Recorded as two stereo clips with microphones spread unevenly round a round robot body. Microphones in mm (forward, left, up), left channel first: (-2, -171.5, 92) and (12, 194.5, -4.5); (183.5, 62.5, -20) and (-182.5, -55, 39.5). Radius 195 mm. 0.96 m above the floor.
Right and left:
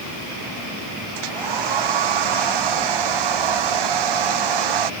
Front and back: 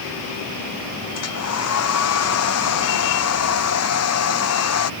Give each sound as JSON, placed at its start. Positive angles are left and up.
{"t": 1.1, "sound": "a hair dryer", "azimuth_deg": 70}